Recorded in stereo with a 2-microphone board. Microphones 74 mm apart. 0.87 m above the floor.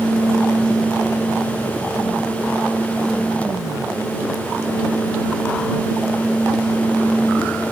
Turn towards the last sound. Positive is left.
No sound to turn to.